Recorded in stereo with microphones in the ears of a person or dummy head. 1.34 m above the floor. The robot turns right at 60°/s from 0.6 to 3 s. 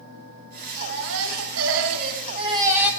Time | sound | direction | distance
0.8 | a baby crying | 130° right | 3 m